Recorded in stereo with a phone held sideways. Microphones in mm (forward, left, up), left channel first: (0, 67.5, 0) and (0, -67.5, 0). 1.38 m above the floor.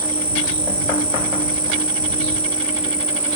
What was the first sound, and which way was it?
An insect, 75° left (ahead or behind).